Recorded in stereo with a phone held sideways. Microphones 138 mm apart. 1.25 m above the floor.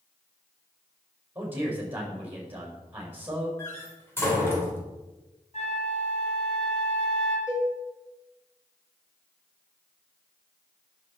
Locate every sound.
1.4 s a man speaking: 15° right (ahead or behind), 5.5 m
3.6 s a door slam: 15° left (ahead or behind), 3.5 m
5.5 s a flute: 55° left (ahead or behind), 2.5 m
7.5 s a cowbell: 25° left (ahead or behind), 5 m